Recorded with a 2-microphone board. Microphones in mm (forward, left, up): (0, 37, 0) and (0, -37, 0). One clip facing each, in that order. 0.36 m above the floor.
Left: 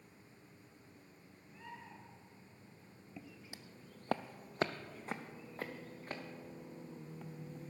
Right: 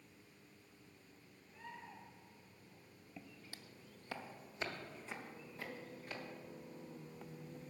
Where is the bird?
5° left (ahead or behind), 3.5 m.